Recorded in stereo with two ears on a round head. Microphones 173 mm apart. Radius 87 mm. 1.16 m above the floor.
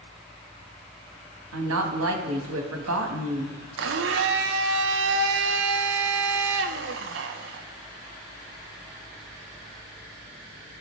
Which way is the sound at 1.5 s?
85° right.